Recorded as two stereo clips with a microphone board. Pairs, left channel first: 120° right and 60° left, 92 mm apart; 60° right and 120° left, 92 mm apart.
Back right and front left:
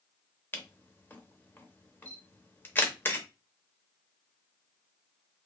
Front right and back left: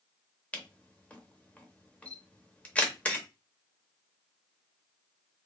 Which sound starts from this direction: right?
A camera shutter, at 0.5 s.